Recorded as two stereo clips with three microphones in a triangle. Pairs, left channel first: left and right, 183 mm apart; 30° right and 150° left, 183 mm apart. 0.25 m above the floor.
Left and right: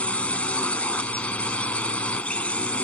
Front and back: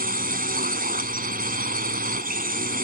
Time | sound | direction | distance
0.0 | a drone | 170° left | ?